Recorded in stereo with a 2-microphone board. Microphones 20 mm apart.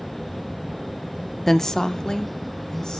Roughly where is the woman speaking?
Centre.